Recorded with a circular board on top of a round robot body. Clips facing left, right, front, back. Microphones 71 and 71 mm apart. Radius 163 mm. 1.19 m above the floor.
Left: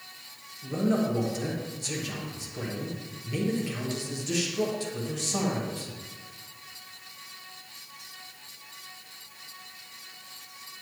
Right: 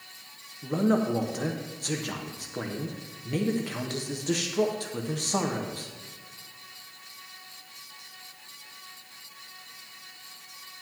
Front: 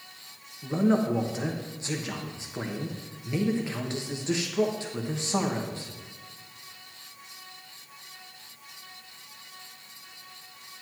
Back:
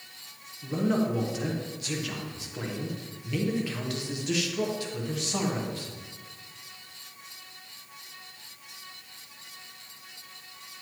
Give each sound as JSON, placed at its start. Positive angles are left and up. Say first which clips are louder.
{"t": 0.6, "sound": "a man speaking", "louder": "right 2 dB, front 2 dB", "azimuth_deg": -60, "distance_m": 1.1}